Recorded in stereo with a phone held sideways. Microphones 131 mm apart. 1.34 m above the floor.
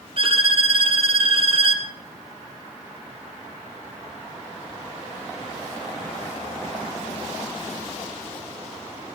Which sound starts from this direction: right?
A violin, at 0.2 s.